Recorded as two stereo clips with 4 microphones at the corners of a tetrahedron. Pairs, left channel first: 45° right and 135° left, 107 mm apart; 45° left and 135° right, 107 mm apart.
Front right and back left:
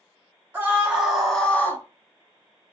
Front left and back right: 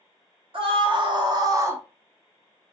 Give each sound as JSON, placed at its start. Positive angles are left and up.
{"t": 0.5, "sound": "a scream", "azimuth_deg": -155, "distance_m": 1.1}